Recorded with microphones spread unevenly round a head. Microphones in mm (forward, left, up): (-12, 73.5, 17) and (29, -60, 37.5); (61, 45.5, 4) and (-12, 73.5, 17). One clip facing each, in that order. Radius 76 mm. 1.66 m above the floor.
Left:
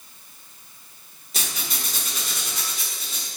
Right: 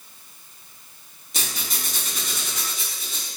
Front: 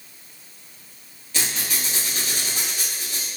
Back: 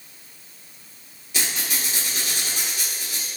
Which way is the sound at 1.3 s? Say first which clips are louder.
Even, even; 150° right.